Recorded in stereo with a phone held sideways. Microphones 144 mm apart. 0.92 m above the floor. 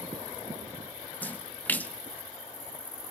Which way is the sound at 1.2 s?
10° left (ahead or behind).